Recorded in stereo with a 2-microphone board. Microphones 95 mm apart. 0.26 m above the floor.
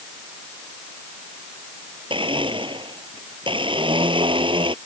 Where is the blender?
65° right (ahead or behind).